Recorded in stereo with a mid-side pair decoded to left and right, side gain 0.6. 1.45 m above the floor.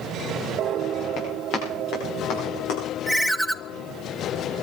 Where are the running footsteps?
65° left, 8.5 m; by 2.8 s 70° left, 9 m.